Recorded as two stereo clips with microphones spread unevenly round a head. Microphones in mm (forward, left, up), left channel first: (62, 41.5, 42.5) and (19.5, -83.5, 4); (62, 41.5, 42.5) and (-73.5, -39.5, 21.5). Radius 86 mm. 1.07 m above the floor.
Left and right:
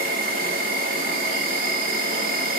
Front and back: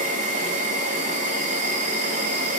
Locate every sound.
0.0 s an insect: 105° right, 2 m